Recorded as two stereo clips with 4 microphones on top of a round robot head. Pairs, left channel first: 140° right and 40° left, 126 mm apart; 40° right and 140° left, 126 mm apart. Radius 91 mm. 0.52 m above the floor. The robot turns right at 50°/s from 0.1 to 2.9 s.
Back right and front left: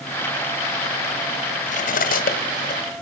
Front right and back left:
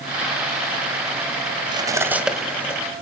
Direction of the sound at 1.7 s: 170° right.